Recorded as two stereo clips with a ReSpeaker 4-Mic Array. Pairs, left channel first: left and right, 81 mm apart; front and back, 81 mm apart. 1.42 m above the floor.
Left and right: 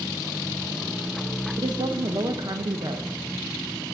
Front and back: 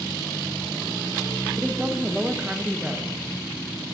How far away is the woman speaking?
About 0.6 m.